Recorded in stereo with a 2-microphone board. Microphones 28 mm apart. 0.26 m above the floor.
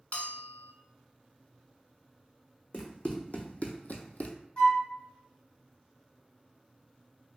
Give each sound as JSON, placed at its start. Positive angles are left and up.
{"t": 0.1, "sound": "a bell", "side_deg": 60, "distance_m": 0.5}
{"t": 2.7, "sound": "running footsteps", "side_deg": 40, "distance_m": 1.0}
{"t": 4.6, "sound": "a flute", "side_deg": 35, "distance_m": 0.8}